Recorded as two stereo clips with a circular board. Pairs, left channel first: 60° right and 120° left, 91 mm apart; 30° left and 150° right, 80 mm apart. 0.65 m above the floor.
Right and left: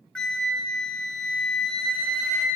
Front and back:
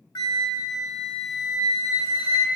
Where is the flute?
20° left, 0.8 m.